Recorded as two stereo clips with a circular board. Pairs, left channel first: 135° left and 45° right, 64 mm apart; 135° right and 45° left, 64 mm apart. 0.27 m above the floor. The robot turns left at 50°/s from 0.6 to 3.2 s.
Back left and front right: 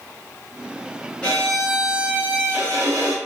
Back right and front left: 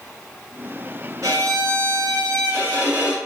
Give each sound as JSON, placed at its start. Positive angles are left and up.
{"t": 1.2, "sound": "a violin", "azimuth_deg": 65, "distance_m": 2.0}